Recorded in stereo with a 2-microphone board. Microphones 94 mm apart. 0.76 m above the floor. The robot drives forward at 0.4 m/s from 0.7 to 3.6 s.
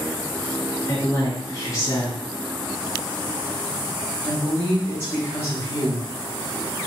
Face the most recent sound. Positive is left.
turn(degrees=25)  # may be behind; listen again after turning